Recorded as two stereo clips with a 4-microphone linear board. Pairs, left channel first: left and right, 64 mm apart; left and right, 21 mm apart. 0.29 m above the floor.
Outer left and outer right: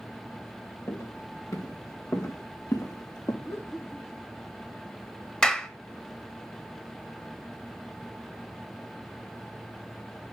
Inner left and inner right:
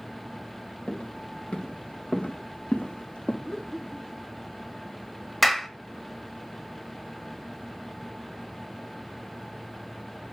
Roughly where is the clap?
Centre.